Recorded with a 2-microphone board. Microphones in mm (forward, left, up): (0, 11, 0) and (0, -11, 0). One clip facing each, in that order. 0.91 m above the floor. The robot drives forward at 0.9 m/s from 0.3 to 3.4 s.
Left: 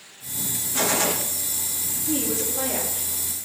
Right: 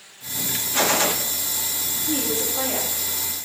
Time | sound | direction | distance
0.7 | a gunshot | 30° right (ahead or behind) | 0.6 m
2.1 | a woman speaking | 35° right (ahead or behind) | 5.5 m